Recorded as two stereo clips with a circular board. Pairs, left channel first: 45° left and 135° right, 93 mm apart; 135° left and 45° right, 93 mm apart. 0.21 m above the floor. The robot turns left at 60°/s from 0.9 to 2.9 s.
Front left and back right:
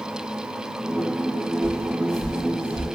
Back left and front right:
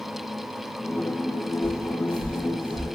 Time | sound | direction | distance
1.6 | footsteps | 15° right | 3 m